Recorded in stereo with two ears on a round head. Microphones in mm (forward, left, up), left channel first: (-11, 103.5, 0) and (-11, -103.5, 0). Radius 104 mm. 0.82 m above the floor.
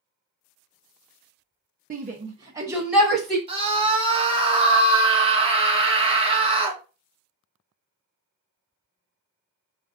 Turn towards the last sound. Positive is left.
turn(degrees=-25)  # may be behind; listen again after turning